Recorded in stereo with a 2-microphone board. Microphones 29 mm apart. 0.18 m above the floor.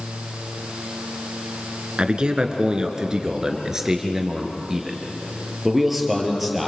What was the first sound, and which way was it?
A man speaking, 35° right (ahead or behind).